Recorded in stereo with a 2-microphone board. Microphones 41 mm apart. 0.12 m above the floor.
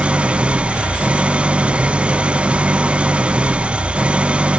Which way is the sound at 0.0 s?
25° right (ahead or behind).